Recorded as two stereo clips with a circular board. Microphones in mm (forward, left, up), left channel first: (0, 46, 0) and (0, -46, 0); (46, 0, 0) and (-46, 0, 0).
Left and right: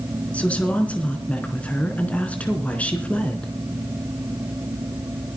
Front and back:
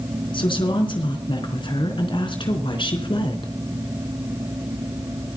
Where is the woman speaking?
15° left, 3.5 m.